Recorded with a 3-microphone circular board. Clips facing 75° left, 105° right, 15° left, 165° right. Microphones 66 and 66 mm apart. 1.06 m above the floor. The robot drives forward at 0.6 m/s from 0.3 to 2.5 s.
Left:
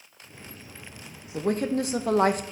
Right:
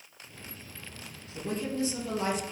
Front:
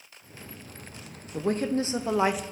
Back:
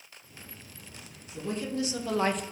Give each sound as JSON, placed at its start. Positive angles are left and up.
{"t": 1.3, "sound": "a woman speaking", "azimuth_deg": 40, "distance_m": 0.8}